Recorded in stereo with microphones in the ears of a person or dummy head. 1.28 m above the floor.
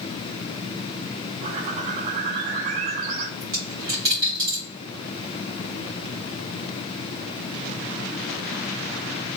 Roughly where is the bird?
Right.